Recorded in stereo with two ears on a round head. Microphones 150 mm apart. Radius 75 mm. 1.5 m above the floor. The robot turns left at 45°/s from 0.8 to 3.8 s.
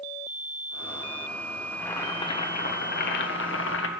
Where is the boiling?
175° left, 1.3 m; by 3.9 s 80° left, 1.3 m.